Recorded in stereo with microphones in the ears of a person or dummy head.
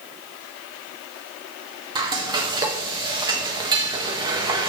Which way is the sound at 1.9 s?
30° right (ahead or behind).